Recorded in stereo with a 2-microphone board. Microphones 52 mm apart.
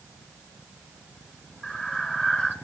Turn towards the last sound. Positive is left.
turn(degrees=25)  # may be behind; listen again after turning